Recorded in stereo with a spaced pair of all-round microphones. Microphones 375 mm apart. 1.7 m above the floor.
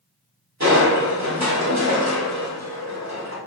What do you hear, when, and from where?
0.6 s crushing: 45° right (ahead or behind), 4 m